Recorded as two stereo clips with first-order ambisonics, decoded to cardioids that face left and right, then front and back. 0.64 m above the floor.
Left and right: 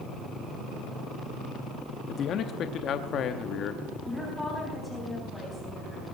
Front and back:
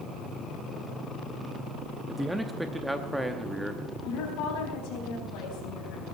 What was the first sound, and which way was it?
A man speaking, 95° left.